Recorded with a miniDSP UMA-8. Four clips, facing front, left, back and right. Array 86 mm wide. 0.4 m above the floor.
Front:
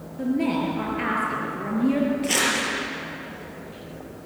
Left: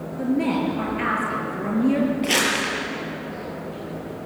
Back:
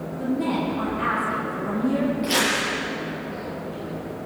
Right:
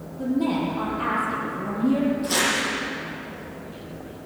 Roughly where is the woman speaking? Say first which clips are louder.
Left 1 dB, front 1 dB; ahead left.